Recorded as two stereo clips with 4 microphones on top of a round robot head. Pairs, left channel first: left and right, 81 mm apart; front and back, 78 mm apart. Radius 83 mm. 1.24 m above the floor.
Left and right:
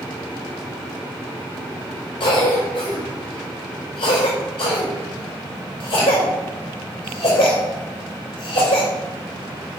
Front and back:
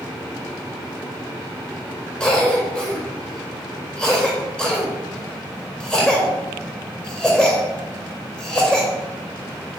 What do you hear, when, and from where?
2.2 s a cough: 80° left, 4.5 m